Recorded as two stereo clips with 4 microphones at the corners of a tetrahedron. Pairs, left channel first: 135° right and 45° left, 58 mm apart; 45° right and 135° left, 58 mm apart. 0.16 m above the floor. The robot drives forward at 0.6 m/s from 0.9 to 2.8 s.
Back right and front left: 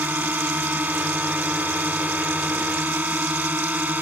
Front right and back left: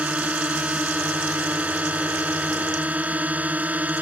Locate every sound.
0.0 s a drone: 85° left; by 4.0 s 90° left